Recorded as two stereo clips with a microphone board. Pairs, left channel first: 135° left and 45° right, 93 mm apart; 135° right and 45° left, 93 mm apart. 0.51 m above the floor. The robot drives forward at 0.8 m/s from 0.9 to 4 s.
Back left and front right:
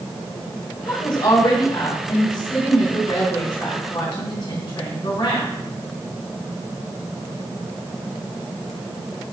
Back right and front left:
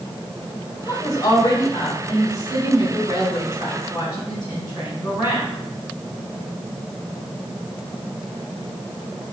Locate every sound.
0.9 s a woman speaking: 175° left, 1.6 m; by 5.5 s straight behind, 4 m